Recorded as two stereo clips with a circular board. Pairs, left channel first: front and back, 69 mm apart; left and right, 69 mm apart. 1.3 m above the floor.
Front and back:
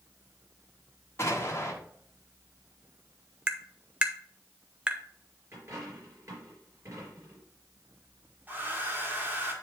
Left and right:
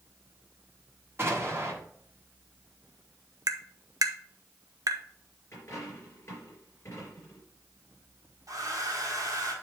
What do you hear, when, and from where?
1.2 s an explosion: 40° right, 1.4 m
3.5 s tapping: 105° right, 0.6 m
5.5 s a dropped coin: 140° left, 4 m
8.5 s a hair dryer: 115° right, 1.7 m